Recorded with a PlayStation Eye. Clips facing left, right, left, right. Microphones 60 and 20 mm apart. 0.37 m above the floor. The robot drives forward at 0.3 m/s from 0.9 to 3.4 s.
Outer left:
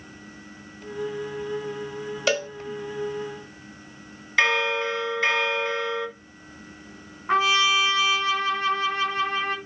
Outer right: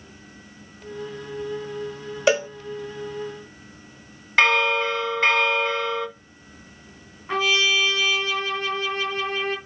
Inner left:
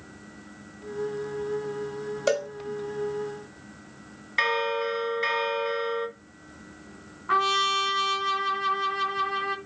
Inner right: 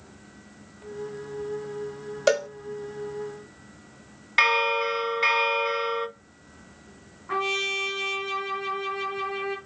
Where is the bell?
50° right (ahead or behind), 1.1 m.